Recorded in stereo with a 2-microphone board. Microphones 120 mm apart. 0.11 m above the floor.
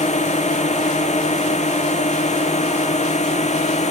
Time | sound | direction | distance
0.0 | a drone | 70° left (ahead or behind) | ?